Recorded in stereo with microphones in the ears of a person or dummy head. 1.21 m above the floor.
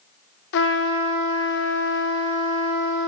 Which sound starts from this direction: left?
A trumpet, at 0.5 s.